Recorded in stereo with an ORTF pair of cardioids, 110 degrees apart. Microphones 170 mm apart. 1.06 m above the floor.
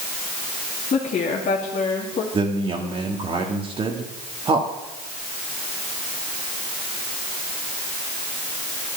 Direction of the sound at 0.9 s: 45° left.